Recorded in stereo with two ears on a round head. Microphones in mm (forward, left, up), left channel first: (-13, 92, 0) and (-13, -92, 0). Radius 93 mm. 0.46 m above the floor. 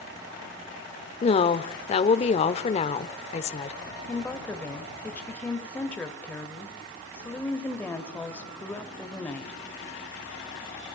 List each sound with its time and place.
1.2 s a woman speaking: 30° left (ahead or behind), 1.2 m
4.1 s a woman speaking: 5° left (ahead or behind), 2.5 m